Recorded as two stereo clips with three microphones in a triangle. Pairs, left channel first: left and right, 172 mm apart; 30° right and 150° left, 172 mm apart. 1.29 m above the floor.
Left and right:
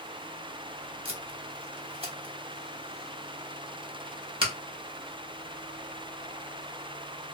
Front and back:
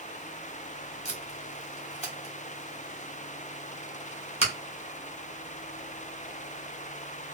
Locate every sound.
1.1 s tape being pulled: 50° right, 1.0 m